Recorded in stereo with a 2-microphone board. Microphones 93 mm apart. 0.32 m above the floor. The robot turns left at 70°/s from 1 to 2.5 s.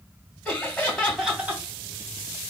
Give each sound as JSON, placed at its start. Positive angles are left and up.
{"t": 0.5, "sound": "laughter", "azimuth_deg": 15, "distance_m": 2.0}